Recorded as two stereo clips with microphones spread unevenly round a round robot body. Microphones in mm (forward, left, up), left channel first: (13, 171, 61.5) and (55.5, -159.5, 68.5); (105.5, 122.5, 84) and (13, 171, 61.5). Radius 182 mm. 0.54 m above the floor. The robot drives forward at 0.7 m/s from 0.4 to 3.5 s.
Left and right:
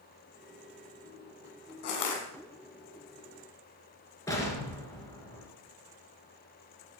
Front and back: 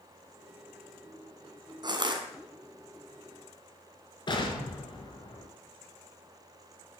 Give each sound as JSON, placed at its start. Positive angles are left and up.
{"t": 1.8, "sound": "crushing", "azimuth_deg": 100, "distance_m": 2.5}
{"t": 4.3, "sound": "an explosion", "azimuth_deg": 15, "distance_m": 4.5}